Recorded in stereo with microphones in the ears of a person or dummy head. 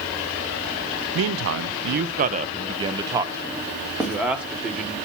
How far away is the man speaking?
About 0.7 m.